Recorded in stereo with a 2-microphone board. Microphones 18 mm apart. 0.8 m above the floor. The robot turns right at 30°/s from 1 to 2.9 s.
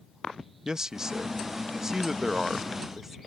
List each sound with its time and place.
0.7 s a man speaking: 85° right; by 3.2 s 30° right